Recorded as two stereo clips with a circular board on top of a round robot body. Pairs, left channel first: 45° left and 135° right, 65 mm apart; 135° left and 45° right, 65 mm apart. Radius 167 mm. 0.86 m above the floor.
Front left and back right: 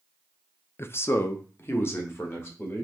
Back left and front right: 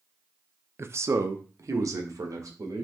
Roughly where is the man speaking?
Ahead.